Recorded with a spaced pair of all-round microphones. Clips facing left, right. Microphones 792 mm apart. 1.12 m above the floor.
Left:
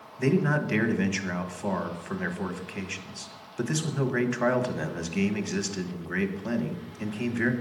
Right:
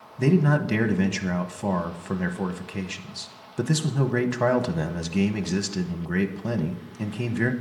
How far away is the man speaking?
About 1.2 m.